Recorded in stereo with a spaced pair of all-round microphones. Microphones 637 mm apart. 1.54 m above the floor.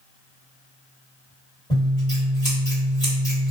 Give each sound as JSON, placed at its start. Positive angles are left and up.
{"t": 1.7, "sound": "scissors", "side_deg": 10, "distance_m": 1.6}